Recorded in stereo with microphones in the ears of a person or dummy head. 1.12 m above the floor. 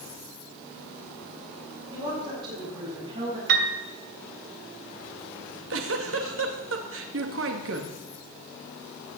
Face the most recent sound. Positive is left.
turn(degrees=-75)  # may be behind; listen again after turning